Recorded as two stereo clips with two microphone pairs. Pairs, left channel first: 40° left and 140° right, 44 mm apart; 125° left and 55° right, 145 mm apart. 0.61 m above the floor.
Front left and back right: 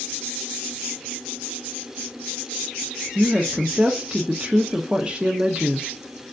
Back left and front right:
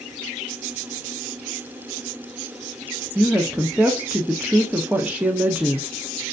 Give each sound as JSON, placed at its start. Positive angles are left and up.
{"t": 3.1, "sound": "a woman speaking", "azimuth_deg": -120, "distance_m": 0.6}